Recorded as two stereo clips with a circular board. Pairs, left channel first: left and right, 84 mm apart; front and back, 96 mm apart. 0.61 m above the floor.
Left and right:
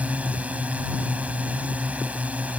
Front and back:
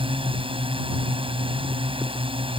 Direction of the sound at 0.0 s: 165° right.